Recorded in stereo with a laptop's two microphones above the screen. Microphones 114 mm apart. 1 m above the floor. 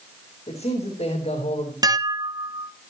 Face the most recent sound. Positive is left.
turn(degrees=-35)  # may be behind; listen again after turning